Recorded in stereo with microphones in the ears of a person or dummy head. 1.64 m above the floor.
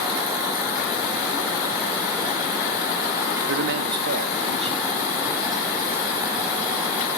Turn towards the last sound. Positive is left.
turn(degrees=-10)  # may be behind; listen again after turning